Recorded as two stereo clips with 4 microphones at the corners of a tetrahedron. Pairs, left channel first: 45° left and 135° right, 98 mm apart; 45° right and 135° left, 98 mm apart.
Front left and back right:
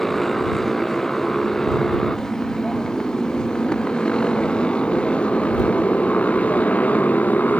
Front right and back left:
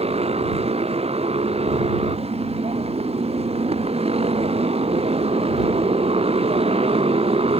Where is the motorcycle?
130° left; by 7.6 s 120° left.